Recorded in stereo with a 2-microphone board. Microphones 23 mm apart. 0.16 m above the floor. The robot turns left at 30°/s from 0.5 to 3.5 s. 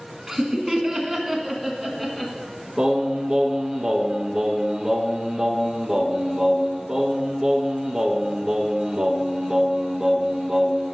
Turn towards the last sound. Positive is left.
turn(degrees=-35)  # may be behind; listen again after turning